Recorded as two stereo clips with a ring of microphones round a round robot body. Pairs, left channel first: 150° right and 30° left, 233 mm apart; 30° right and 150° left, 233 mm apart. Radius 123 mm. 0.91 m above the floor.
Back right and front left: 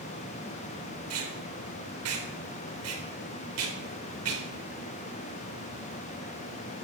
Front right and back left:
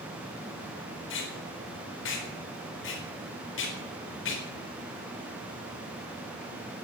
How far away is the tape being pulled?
About 4 m.